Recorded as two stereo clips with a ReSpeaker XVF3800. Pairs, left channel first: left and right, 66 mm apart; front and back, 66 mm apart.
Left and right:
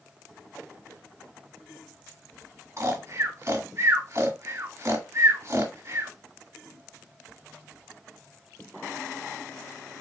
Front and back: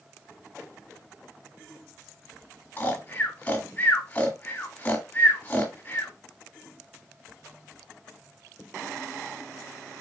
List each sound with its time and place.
2.8 s snoring: 60° right, 1.6 m